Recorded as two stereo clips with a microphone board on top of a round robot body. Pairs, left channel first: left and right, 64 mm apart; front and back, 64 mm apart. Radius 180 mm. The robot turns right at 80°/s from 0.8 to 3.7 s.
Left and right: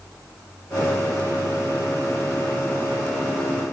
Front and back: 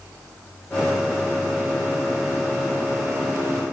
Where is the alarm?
I don't hear an alarm.